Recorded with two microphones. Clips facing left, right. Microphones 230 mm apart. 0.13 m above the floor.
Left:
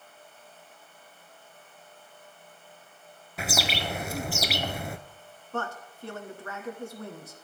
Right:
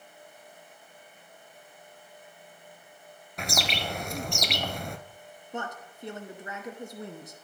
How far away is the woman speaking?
About 1.1 m.